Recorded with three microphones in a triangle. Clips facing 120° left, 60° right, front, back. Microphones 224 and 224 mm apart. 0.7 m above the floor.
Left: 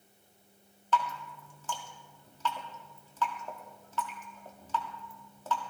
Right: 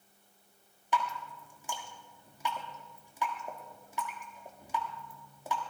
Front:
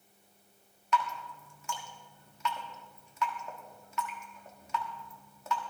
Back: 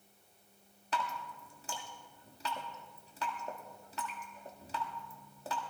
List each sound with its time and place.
0.9 s dripping: 135° right, 1.5 m